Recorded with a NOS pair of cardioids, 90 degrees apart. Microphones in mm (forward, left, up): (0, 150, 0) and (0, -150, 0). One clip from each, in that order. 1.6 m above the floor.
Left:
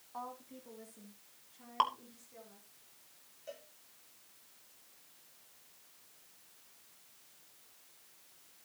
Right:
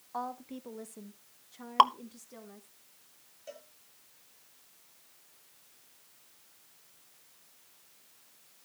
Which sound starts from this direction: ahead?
A cowbell, at 3.5 s.